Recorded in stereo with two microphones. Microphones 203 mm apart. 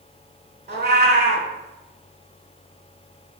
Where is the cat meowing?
55° right (ahead or behind), 0.6 m.